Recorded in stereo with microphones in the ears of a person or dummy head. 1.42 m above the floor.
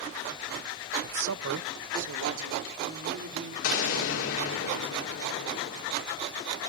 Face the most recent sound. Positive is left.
turn(degrees=75)  # may be behind; listen again after turning